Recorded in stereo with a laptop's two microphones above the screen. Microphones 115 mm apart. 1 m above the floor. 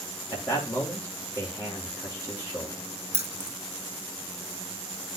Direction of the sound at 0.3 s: 20° left (ahead or behind).